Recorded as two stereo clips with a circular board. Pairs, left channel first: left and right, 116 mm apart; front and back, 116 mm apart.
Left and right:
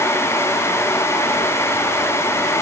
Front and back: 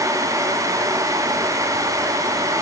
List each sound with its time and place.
Only background noise.